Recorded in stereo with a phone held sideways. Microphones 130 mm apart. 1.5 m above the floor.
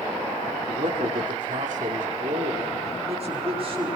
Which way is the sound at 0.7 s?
80° right.